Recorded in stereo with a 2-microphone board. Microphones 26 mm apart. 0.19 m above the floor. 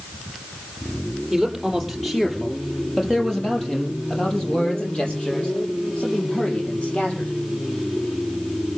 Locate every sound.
1.3 s a man speaking: centre (ahead or behind), 6.5 m; by 7.3 s 50° left (ahead or behind), 8.5 m